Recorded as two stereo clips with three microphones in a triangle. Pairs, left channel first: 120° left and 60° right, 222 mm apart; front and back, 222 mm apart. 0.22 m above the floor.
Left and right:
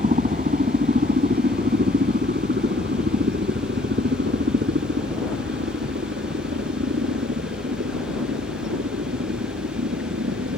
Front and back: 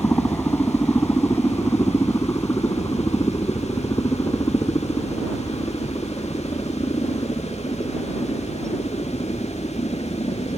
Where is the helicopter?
80° right; by 10.6 s 65° right.